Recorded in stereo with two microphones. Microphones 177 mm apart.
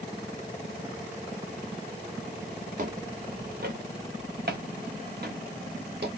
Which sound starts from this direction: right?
Footsteps, at 2.8 s.